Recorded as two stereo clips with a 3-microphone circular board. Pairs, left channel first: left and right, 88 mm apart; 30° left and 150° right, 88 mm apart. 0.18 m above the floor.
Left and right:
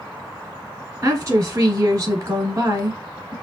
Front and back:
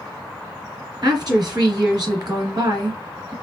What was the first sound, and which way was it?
A woman speaking, 140° right.